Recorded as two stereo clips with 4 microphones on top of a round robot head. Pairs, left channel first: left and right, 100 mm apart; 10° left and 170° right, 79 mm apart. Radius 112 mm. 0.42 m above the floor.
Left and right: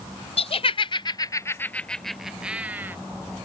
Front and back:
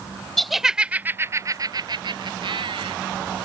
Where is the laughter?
100° left; by 3.0 s 160° right.